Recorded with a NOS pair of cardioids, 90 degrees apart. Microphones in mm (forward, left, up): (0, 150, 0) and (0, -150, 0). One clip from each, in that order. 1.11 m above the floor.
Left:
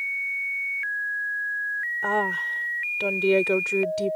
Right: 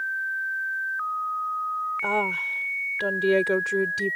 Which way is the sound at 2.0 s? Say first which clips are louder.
Left 1 dB; straight ahead.